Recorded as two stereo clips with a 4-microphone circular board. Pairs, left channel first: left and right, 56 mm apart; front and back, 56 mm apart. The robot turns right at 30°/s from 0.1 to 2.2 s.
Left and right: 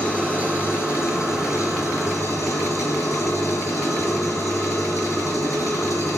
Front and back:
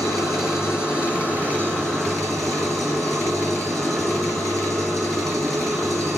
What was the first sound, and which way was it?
An engine running, 25° left.